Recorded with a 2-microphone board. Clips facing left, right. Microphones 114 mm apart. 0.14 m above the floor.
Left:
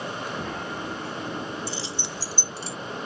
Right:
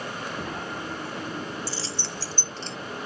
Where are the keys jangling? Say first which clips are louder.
Left 1 dB; 20° left (ahead or behind); by 2.8 s 5° left (ahead or behind).